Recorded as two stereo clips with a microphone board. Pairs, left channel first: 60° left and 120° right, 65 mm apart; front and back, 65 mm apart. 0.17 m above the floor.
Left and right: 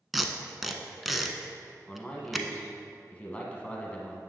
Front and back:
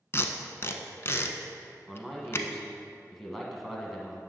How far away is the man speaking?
About 1.3 m.